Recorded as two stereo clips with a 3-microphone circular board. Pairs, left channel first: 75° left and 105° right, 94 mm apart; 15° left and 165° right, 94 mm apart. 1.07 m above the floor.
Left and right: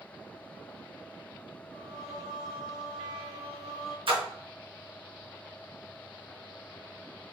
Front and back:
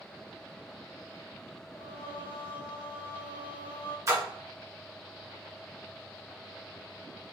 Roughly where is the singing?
Ahead.